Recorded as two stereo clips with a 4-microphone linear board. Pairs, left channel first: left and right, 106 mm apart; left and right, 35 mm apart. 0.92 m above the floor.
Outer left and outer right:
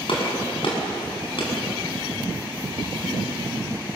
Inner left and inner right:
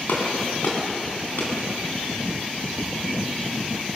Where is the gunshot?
60° left (ahead or behind), 6.5 m.